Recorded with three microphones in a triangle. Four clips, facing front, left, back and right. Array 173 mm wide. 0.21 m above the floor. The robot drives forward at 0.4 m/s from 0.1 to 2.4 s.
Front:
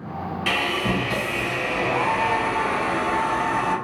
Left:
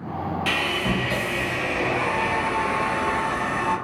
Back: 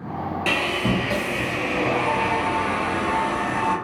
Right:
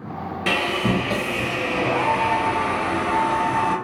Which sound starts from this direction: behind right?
Sawing, at 0.5 s.